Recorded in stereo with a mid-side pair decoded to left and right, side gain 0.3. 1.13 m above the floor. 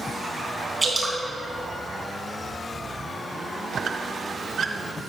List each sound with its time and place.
0.8 s dripping: 30° right, 3.5 m
3.7 s a squeak: 65° right, 0.7 m